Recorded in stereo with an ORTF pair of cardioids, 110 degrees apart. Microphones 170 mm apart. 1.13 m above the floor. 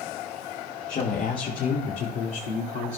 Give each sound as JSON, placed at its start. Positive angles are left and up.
{"t": 0.9, "sound": "a woman speaking", "azimuth_deg": 50, "distance_m": 1.6}